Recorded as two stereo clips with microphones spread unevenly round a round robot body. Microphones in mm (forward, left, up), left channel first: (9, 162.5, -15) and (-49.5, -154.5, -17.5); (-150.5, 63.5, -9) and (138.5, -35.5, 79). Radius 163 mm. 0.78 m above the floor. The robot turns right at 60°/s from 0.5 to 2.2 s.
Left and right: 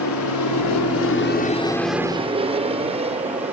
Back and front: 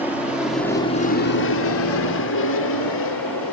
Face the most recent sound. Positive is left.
turn(degrees=-170)